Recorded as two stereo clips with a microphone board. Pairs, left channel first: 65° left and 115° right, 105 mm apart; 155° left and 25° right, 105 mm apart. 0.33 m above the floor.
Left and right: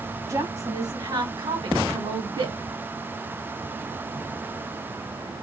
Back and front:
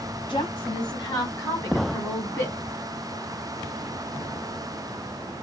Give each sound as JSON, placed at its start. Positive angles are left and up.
{"t": 0.3, "sound": "a woman speaking", "azimuth_deg": -170, "distance_m": 1.7}